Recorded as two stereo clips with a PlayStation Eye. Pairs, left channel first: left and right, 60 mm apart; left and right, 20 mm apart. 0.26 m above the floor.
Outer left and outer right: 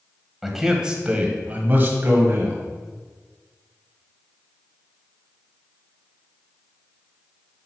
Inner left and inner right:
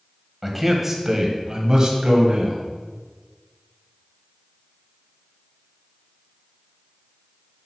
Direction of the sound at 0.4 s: 5° right (ahead or behind).